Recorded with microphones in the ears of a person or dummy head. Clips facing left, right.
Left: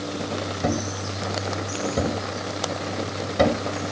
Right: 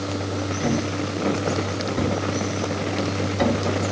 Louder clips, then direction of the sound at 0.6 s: Right 3 dB; 65° left (ahead or behind).